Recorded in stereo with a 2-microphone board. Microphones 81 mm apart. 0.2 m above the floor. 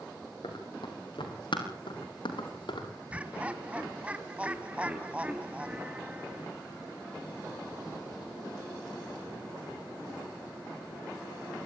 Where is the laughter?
15° right (ahead or behind), 1.4 m.